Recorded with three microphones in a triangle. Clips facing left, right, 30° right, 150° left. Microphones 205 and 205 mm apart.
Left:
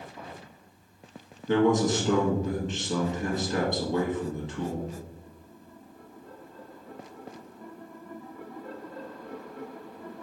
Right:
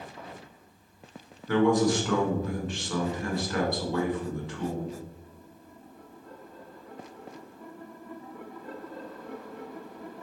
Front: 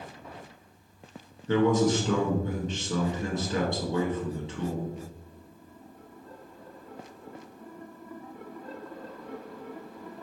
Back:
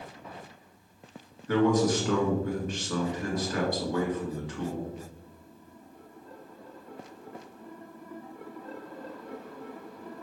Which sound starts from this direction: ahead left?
A man speaking, at 1.5 s.